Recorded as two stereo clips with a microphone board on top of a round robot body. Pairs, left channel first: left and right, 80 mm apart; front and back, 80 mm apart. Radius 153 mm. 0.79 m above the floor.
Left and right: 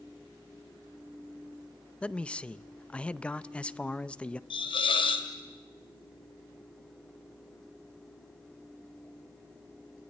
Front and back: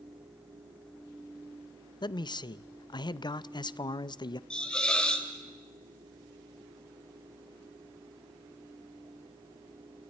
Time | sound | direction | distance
2.0 | a man speaking | 15° left | 0.7 m
4.5 | a hiss | 80° left | 2 m